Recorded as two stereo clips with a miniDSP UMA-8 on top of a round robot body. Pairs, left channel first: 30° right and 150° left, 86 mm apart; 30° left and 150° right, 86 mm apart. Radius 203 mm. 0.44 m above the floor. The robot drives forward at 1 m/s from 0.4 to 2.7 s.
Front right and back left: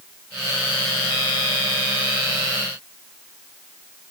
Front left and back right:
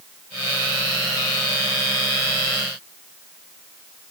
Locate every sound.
Only background noise.